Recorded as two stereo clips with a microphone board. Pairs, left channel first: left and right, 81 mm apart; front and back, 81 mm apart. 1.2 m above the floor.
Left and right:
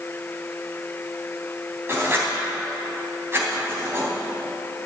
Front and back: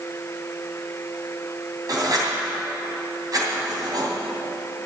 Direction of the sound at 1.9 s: 145° right.